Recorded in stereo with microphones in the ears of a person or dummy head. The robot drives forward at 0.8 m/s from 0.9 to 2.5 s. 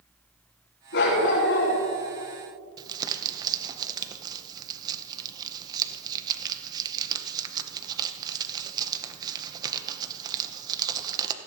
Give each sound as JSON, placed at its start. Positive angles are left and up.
{"t": 0.9, "sound": "a dog barking", "side_deg": 70, "distance_m": 5.0}
{"t": 2.8, "sound": "crumpling", "side_deg": -30, "distance_m": 0.9}